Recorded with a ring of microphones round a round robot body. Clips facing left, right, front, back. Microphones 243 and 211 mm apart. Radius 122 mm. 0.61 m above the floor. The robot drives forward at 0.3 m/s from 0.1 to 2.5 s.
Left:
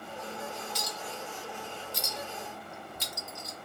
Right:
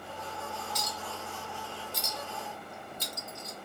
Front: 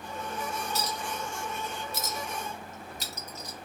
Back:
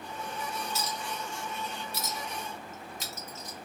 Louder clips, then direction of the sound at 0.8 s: Left 1 dB, front 2 dB; 30° left.